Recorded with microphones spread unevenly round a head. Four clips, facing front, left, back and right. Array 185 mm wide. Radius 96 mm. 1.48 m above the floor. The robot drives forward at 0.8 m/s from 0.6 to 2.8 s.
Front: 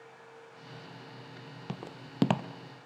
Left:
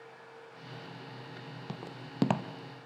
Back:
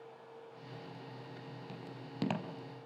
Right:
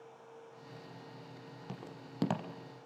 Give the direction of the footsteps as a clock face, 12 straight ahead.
11 o'clock.